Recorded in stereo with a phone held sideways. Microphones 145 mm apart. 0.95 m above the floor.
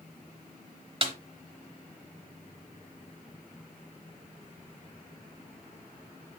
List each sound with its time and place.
1.0 s a snare drum: 40° right (ahead or behind), 0.9 m